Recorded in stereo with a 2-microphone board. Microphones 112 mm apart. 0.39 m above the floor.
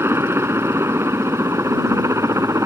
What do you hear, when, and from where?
0.0 s a helicopter: 20° right (ahead or behind); by 2.7 s 25° right (ahead or behind)